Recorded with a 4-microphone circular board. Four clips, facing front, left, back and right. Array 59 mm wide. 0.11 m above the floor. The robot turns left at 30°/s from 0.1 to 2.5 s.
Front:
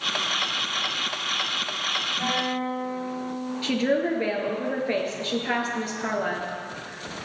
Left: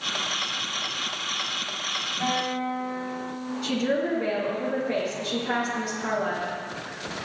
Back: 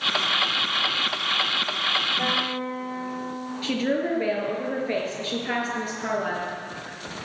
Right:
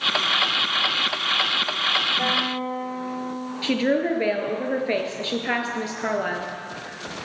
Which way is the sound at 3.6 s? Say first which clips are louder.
Right 4 dB, front 1 dB; 85° right.